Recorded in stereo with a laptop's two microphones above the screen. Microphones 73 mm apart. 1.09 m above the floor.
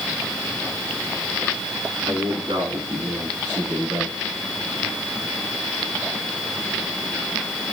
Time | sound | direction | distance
2.1 | a man speaking | 85° right | 9.5 m